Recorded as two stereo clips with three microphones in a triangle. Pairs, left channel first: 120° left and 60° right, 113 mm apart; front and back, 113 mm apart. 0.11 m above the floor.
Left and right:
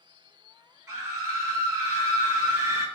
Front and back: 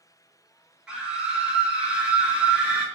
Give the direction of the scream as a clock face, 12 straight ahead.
3 o'clock.